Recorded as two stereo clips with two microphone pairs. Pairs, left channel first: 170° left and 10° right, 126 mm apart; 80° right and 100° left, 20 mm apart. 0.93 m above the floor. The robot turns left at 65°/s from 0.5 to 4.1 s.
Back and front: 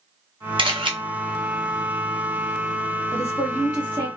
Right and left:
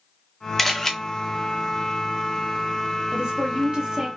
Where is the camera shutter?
5° right, 0.9 m; by 0.9 s 25° right, 0.9 m.